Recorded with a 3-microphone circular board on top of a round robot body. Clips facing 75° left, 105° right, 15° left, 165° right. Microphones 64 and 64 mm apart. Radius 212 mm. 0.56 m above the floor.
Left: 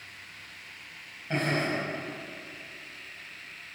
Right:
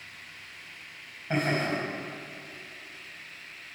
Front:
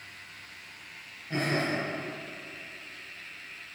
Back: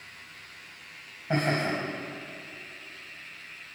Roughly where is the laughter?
Behind.